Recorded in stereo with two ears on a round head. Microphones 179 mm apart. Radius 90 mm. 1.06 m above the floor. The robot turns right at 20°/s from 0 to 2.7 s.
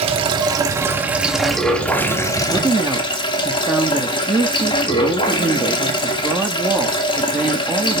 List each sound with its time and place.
0.0 s running water: 30° right, 1.8 m; by 8.0 s 25° left, 1.8 m
2.5 s a woman speaking: 5° right (ahead or behind), 1.6 m